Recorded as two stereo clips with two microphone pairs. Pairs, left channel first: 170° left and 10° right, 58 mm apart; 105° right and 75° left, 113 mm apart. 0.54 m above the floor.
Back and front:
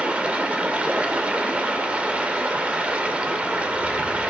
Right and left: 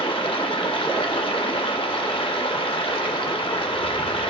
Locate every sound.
0.0 s running water: 75° right, 0.8 m